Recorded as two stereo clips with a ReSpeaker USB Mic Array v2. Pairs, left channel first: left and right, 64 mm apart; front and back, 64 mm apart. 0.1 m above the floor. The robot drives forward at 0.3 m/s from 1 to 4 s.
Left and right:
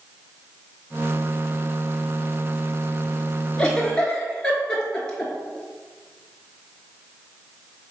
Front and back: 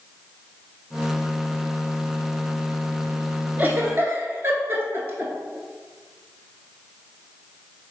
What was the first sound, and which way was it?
A giggle, 150° left.